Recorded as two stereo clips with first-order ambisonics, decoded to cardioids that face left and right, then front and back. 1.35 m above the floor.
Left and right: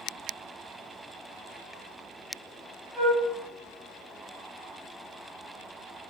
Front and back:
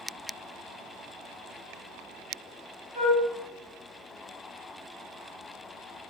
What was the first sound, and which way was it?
A flute, 110° right.